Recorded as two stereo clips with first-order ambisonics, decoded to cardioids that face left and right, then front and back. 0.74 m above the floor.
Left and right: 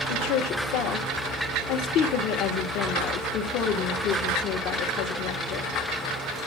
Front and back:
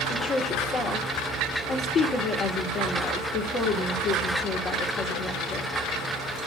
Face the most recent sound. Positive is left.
turn(degrees=55)